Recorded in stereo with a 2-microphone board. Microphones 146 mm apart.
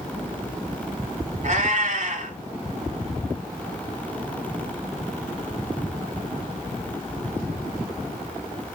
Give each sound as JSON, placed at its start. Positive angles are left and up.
{"t": 1.4, "sound": "a cat meowing", "side_deg": -55, "distance_m": 1.4}